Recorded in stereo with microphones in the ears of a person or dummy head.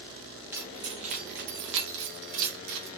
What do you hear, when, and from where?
0.5 s keys jangling: 15° right (ahead or behind), 0.9 m; by 2.9 s 75° right (ahead or behind), 1.9 m